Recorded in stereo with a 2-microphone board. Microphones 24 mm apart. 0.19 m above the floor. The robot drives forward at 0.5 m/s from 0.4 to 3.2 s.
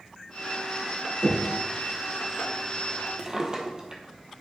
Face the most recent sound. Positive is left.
turn(degrees=-35)  # may be behind; listen again after turning